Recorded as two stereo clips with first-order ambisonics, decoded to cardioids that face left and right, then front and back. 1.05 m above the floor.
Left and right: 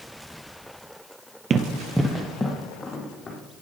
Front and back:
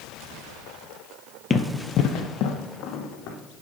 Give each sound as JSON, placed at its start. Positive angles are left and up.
{"t": 1.5, "sound": "running footsteps", "azimuth_deg": -60, "distance_m": 1.1}